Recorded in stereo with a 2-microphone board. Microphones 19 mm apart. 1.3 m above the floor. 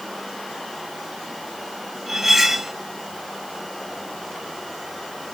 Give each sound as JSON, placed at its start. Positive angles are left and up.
{"t": 2.1, "sound": "cutlery clinking", "side_deg": -15, "distance_m": 0.9}